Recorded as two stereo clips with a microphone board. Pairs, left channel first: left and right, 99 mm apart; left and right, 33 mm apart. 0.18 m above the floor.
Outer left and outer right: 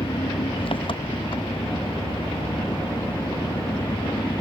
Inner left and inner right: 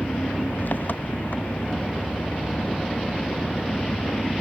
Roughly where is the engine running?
Left.